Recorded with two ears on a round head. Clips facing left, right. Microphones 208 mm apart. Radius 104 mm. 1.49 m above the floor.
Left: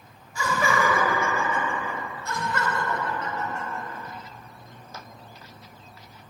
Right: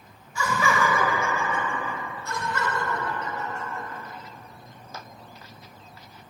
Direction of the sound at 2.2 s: 50° left (ahead or behind).